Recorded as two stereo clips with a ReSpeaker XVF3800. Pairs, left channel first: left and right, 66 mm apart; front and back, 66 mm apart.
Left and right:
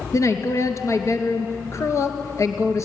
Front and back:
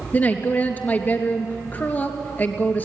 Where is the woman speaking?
55° left, 2 m.